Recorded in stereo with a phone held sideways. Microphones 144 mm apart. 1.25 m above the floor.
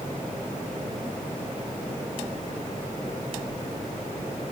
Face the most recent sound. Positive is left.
No sound to turn to.